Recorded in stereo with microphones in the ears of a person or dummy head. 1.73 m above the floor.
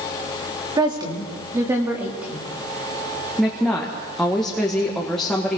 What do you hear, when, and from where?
0.8 s a woman speaking: 20° right (ahead or behind), 3 m; by 2.5 s centre (ahead or behind), 3 m
3.4 s a woman speaking: 5° left (ahead or behind), 1.9 m